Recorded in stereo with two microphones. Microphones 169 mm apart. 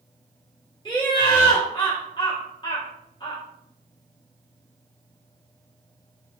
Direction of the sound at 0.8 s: 25° left (ahead or behind).